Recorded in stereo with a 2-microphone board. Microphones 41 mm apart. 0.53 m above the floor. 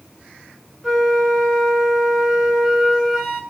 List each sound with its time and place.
0.8 s a flute: 5° right (ahead or behind), 7 m